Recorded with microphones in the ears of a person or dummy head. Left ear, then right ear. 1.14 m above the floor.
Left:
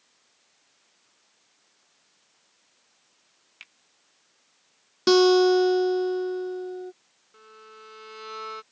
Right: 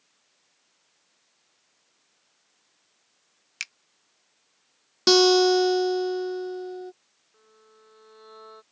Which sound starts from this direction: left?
A violin, at 7.3 s.